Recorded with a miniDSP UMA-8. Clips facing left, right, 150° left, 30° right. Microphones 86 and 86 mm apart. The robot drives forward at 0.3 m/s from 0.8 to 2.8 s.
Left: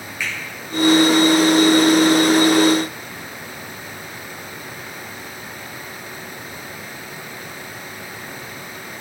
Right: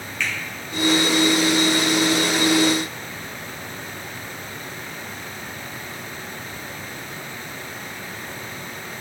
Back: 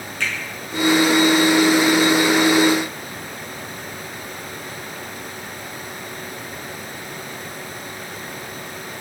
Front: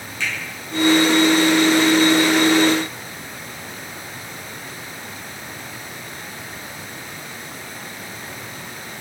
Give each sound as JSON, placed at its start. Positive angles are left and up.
{"t": 0.2, "sound": "a finger snap", "azimuth_deg": 165, "distance_m": 1.7}